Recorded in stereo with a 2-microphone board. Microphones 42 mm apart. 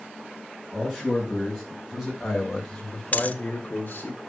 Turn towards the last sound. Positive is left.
turn(degrees=40)  # may be behind; listen again after turning